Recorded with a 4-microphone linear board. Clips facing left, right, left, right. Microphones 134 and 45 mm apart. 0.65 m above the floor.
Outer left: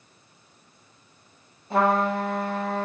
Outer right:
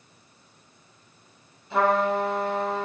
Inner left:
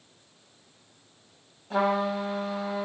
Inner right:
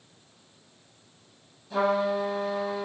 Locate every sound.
1.7 s a trumpet: 40° left (ahead or behind), 1.0 m